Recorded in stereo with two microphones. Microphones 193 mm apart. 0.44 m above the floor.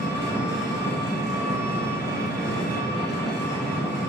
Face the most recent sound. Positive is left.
turn(degrees=60)  # may be behind; listen again after turning